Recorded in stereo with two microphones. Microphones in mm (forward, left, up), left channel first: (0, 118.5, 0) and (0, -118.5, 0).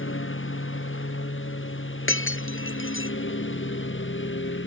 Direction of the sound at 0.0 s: 60° left (ahead or behind).